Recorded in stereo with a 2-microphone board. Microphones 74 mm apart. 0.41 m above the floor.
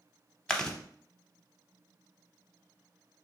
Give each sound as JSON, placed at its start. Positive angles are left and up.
{"t": 0.5, "sound": "chewing", "side_deg": 10, "distance_m": 0.5}